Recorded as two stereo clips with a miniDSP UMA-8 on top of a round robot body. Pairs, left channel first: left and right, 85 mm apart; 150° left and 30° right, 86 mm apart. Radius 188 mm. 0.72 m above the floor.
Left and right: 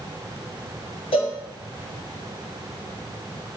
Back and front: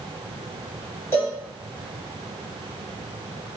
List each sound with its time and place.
1.1 s a cowbell: 90° left, 1.2 m